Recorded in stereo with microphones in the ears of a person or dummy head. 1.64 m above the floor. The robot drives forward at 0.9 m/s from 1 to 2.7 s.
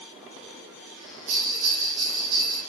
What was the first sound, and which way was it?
A bell, 50° right (ahead or behind).